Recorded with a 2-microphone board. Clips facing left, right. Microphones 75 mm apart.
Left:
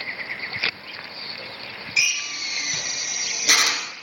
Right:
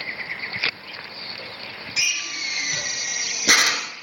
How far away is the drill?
About 0.9 m.